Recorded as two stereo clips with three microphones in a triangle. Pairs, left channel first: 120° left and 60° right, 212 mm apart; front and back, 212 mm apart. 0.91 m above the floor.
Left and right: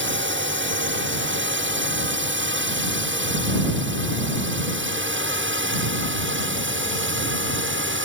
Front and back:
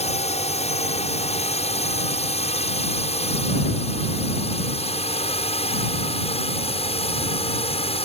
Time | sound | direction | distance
0.0 | a drone | 55° right | ?